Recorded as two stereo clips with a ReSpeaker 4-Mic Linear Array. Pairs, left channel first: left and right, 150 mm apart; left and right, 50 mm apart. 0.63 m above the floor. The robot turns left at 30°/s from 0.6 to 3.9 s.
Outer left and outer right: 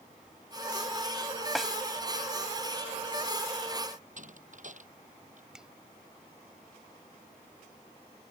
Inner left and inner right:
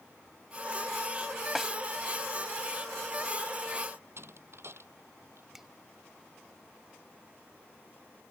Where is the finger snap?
5° right (ahead or behind).